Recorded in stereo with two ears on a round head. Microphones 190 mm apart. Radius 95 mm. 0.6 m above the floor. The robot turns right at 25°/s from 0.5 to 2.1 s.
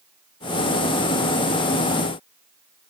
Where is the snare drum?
I don't hear a snare drum.